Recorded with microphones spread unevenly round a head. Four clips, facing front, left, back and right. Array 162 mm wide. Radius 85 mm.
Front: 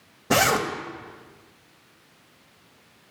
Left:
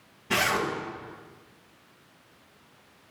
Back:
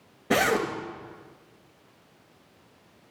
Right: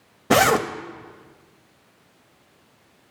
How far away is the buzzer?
No buzzer in this recording.